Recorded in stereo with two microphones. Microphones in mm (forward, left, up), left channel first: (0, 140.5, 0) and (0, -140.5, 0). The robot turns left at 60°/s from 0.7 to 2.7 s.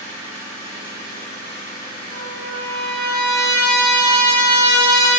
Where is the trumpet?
175° left, 2 m; by 5.2 s 140° left, 2 m.